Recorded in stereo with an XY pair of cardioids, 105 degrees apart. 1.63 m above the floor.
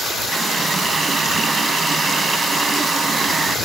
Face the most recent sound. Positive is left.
turn(degrees=-35)